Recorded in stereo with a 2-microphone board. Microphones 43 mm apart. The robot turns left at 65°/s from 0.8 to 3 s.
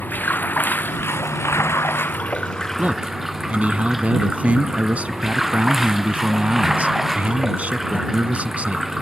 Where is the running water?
135° left; by 9.0 s 10° right.